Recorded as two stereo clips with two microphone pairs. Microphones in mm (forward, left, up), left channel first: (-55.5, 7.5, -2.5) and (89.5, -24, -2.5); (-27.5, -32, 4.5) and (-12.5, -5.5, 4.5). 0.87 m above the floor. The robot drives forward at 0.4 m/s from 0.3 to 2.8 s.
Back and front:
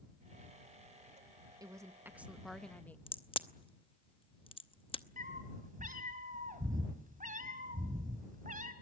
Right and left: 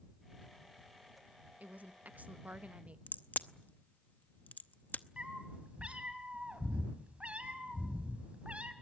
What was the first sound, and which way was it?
A woman speaking, 50° left.